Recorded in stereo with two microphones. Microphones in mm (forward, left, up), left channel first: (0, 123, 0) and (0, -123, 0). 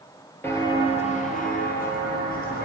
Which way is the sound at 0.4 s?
10° left (ahead or behind).